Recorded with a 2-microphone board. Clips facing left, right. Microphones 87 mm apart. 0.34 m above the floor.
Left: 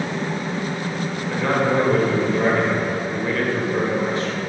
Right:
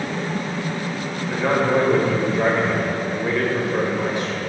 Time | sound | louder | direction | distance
1.3 | a man speaking | right 1 dB | 15° right (ahead or behind) | 0.9 m